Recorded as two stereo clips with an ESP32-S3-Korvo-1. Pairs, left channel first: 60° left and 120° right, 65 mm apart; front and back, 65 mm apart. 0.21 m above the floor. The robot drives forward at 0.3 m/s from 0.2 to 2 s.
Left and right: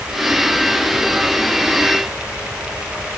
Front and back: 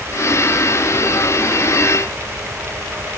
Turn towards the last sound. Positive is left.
No sound to turn to.